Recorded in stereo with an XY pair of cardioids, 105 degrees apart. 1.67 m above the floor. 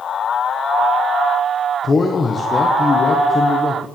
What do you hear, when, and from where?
1.8 s a man speaking: 35° left, 1.5 m